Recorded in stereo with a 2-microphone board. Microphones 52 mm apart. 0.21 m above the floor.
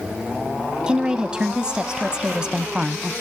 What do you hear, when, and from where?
0.9 s a woman speaking: 15° right (ahead or behind), 1.0 m